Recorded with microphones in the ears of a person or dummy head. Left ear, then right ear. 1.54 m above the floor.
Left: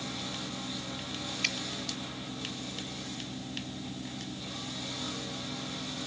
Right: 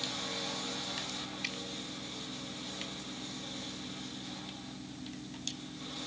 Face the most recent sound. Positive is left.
turn(degrees=20)  # may be behind; listen again after turning